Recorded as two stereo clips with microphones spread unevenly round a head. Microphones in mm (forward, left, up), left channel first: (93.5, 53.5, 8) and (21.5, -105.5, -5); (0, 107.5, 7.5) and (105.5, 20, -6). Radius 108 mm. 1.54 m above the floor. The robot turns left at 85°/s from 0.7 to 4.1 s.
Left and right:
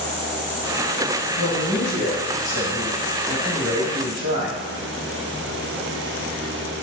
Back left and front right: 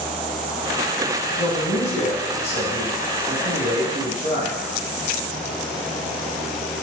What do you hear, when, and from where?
1.4 s a man speaking: 160° left, 1.5 m; by 4.6 s 75° right, 1.5 m